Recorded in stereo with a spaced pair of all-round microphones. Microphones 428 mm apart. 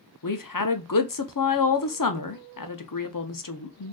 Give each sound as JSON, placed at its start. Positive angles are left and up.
{"t": 0.2, "sound": "a woman speaking", "side_deg": 50, "distance_m": 0.6}